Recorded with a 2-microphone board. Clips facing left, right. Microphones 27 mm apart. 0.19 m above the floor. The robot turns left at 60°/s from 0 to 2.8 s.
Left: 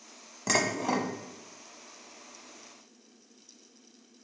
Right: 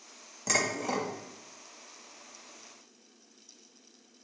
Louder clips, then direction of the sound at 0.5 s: Left 2 dB; 20° left (ahead or behind).